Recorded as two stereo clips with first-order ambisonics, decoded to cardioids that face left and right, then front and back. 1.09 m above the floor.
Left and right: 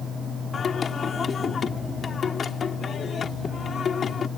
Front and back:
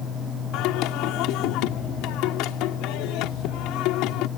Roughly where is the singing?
Ahead left.